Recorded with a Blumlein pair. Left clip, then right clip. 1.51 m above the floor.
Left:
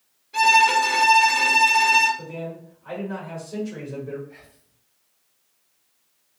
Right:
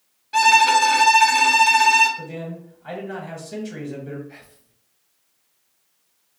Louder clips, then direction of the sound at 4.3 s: Right 2 dB; 30° right.